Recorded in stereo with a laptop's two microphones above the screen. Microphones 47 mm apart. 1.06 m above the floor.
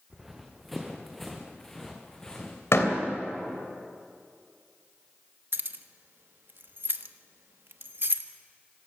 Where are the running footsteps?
5° right (ahead or behind), 3.5 m; by 2.6 s 20° left (ahead or behind), 3.5 m.